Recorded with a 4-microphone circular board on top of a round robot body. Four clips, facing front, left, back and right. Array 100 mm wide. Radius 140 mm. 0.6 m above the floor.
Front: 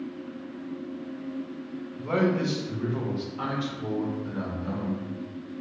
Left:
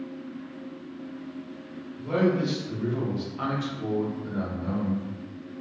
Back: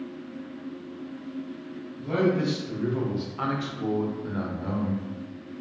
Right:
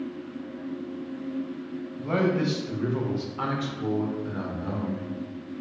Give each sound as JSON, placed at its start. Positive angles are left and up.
{"t": 2.0, "sound": "a man speaking", "azimuth_deg": -35, "distance_m": 0.9}